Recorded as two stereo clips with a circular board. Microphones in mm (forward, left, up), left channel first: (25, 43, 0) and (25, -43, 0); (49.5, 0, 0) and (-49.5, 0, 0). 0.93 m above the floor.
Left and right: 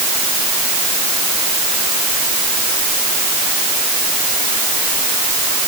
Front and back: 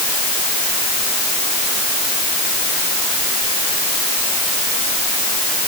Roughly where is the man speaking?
I don't hear a man speaking.